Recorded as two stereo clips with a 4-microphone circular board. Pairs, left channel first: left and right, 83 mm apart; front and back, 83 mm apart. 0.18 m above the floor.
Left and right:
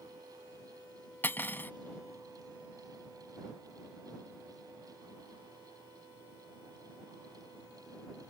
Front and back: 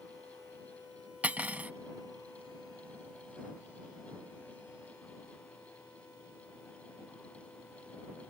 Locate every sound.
1.2 s cutlery clinking: 125° left